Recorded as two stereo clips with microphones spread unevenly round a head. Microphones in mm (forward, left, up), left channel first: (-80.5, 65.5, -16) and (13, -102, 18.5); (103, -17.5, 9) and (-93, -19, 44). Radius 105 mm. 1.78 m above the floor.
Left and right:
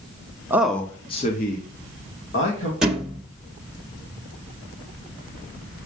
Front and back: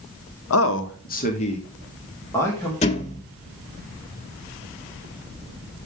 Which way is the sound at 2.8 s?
10° right.